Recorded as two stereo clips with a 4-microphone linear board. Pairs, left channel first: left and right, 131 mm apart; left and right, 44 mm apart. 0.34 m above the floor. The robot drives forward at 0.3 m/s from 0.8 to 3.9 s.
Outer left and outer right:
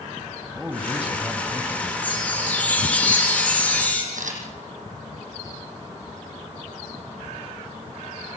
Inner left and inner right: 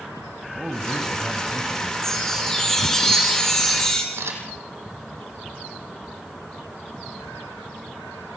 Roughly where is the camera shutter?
Right.